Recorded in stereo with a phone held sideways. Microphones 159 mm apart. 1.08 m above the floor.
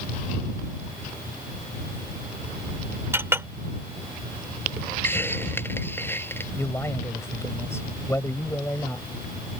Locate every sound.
3.1 s a clink: 15° right (ahead or behind)
5.0 s a hiss: 15° left (ahead or behind)
6.6 s a man speaking: 15° left (ahead or behind)